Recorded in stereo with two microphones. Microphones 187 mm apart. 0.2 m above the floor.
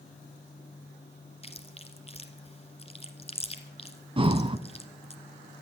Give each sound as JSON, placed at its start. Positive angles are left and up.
{"t": 1.4, "sound": "chewing", "side_deg": 35, "distance_m": 1.2}
{"t": 4.2, "sound": "breathing", "side_deg": -30, "distance_m": 0.5}